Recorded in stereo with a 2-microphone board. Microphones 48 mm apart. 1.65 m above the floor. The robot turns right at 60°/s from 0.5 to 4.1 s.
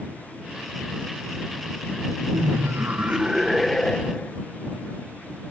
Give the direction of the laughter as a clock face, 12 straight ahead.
3 o'clock.